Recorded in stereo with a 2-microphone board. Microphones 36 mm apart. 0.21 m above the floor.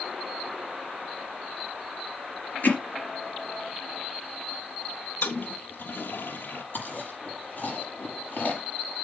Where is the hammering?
60° left (ahead or behind), 3 m.